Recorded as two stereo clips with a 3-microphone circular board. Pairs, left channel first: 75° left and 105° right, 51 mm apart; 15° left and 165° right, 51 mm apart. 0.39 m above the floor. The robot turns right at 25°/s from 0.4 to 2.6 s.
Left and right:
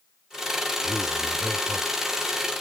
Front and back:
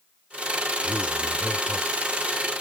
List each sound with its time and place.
0.8 s a man speaking: 75° right; by 2.1 s 45° right